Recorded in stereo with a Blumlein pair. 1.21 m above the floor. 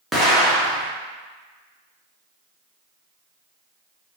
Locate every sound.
0.1 s an explosion: 5° right, 1.1 m